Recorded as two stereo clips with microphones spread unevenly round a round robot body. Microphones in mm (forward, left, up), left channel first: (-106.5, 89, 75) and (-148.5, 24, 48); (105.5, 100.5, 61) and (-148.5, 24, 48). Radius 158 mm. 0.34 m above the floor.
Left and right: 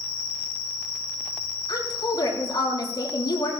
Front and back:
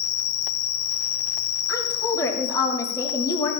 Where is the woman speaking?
95° left, 5 m.